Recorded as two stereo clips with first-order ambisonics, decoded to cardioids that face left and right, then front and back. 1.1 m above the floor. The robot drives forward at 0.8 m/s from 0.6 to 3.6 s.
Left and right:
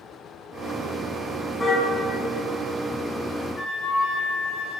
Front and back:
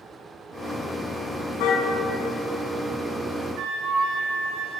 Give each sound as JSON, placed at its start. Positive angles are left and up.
{"t": 1.6, "sound": "a car horn", "azimuth_deg": 10, "distance_m": 5.5}
{"t": 3.6, "sound": "a flute", "azimuth_deg": 160, "distance_m": 6.0}